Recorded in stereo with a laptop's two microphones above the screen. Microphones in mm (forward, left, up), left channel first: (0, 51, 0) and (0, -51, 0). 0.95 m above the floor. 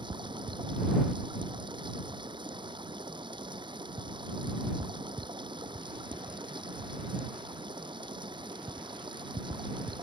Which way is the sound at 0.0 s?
50° right (ahead or behind).